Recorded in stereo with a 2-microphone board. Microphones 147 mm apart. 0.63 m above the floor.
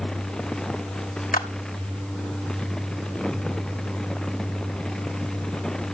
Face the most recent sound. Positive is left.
turn(degrees=70)  # may be behind; listen again after turning